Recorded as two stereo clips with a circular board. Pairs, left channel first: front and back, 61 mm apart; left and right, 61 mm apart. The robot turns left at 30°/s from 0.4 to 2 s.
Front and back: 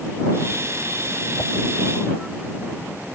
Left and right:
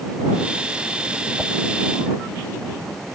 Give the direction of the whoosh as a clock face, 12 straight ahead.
12 o'clock.